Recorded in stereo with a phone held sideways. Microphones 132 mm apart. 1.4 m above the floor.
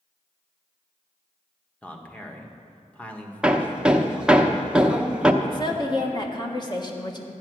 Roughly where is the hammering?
Centre.